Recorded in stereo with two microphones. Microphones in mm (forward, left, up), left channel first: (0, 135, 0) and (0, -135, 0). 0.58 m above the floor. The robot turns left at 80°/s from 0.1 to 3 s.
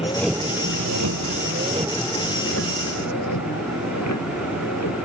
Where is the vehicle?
20° left (ahead or behind); by 5.0 s 75° left (ahead or behind).